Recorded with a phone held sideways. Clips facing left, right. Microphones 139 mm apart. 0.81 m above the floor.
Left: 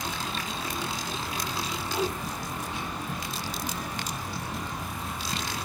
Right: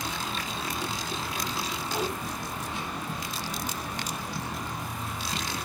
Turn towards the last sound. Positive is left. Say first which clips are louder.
# left 2 dB
turn(degrees=-80)